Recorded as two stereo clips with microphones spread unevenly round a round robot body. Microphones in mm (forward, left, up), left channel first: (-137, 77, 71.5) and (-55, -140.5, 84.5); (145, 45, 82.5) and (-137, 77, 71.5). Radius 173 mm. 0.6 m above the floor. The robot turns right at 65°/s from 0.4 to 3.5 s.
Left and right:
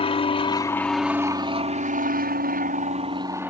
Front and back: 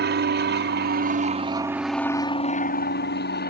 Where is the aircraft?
160° left; by 3.5 s 10° left.